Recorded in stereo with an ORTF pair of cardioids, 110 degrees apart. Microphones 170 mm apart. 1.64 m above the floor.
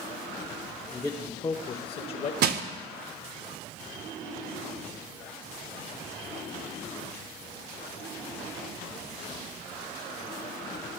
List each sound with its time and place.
0.9 s a man speaking: 5° left, 1.0 m; by 2.3 s 50° left, 1.2 m
2.4 s crushing: 65° right, 0.9 m